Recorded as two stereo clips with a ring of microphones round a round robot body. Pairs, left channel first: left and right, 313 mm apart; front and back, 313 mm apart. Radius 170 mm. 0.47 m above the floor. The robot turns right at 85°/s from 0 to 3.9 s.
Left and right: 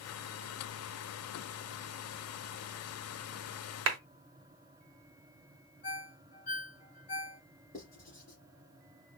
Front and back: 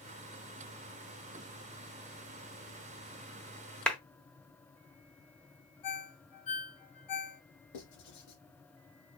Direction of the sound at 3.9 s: 85° right.